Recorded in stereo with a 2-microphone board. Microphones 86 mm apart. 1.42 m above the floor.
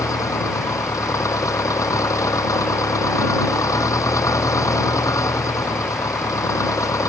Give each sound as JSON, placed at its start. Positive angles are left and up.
{"t": 0.0, "sound": "an engine running", "side_deg": 40}